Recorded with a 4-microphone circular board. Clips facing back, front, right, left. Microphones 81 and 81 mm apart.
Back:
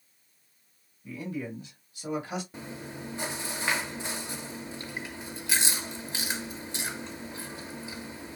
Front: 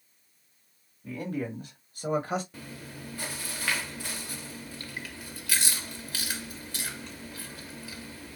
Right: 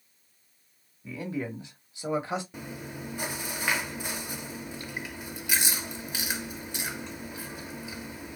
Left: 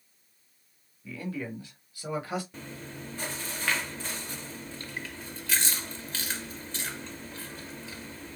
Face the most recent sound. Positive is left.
turn(degrees=-145)